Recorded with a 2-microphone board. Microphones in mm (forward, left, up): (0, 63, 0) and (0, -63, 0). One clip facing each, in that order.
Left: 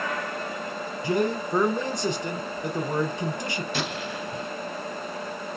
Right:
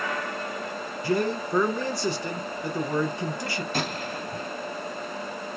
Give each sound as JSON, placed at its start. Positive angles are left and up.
{"t": 1.0, "sound": "a man speaking", "side_deg": 20, "distance_m": 1.3}
{"t": 3.7, "sound": "a gunshot", "side_deg": -40, "distance_m": 0.9}